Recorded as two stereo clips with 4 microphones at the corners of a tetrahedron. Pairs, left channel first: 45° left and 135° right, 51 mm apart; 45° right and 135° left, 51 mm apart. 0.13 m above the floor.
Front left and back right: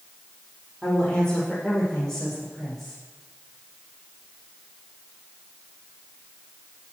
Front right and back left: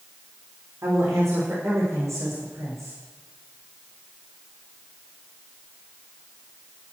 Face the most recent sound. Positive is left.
turn(degrees=130)